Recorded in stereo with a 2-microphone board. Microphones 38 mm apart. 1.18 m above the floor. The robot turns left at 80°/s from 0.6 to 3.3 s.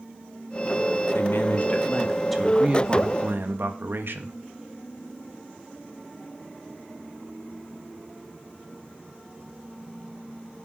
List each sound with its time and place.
1.1 s a man speaking: 95° left, 2 m; by 4.3 s 80° right, 2 m